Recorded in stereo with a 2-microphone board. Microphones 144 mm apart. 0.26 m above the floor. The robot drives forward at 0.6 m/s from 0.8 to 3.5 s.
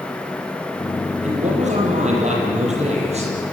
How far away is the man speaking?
About 8.5 m.